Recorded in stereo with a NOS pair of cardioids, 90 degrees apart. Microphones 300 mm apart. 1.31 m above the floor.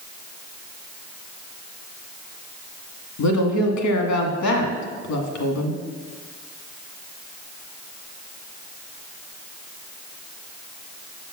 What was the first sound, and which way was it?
A woman speaking, 65° left.